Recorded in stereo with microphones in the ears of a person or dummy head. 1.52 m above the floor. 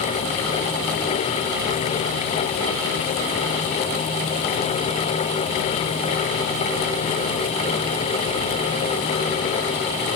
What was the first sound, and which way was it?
Only background noise.